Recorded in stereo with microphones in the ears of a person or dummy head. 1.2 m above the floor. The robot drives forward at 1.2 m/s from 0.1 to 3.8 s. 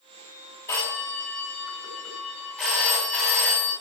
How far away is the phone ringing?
About 2.5 m.